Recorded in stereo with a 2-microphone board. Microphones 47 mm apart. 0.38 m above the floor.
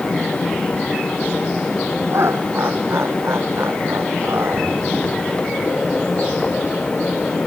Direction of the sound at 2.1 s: 65° right (ahead or behind).